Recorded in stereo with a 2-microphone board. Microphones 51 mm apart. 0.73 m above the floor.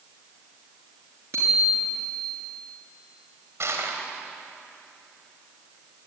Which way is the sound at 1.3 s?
65° right (ahead or behind).